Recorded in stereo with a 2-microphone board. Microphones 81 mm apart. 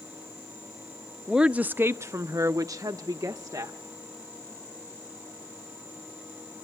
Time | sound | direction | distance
1.3 | a woman speaking | 5° right (ahead or behind) | 0.7 m